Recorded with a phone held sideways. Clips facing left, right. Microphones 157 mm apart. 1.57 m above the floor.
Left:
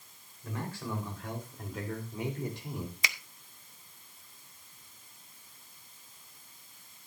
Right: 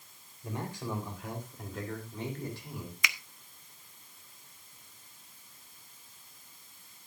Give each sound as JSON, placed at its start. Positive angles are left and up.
{"t": 0.4, "sound": "a man speaking", "side_deg": -25, "distance_m": 4.0}
{"t": 3.0, "sound": "a finger snap", "side_deg": 35, "distance_m": 0.7}